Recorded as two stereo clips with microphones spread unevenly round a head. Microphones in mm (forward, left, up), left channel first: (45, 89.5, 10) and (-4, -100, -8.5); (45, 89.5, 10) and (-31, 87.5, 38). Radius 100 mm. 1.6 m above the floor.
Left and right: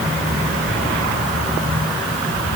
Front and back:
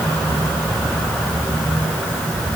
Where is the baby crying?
I don't hear a baby crying.